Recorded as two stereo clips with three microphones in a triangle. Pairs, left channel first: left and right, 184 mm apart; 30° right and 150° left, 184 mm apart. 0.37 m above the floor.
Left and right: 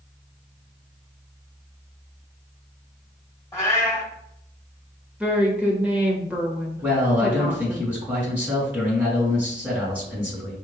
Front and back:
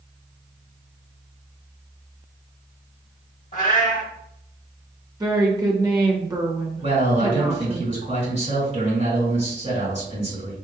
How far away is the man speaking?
About 2.0 m.